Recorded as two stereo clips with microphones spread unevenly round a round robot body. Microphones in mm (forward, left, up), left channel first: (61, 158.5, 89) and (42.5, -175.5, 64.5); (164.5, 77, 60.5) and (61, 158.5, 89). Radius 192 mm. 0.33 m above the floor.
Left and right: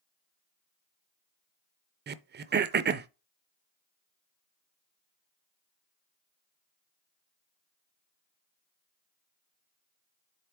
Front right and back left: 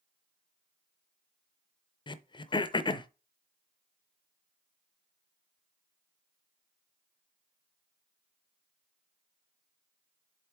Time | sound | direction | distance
2.1 | throat clearing | 45° right | 0.5 m